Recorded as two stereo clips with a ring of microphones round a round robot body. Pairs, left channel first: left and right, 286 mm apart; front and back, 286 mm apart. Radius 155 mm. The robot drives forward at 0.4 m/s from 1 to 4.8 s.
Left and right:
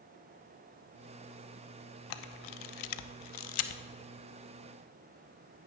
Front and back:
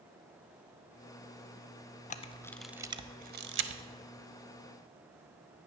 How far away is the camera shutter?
About 0.5 m.